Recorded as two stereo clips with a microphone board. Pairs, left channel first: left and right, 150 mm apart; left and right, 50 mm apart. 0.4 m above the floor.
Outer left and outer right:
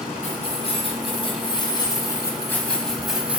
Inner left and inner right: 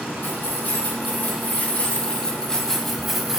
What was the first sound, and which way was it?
Keys jangling, 45° left (ahead or behind).